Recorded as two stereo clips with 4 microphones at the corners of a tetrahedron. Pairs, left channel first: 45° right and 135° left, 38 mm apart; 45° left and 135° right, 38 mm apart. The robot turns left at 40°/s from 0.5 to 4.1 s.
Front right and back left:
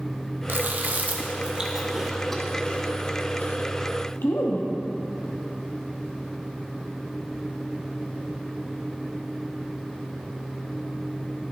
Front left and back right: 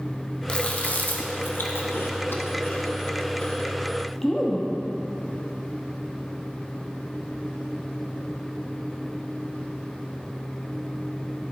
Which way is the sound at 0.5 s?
105° left.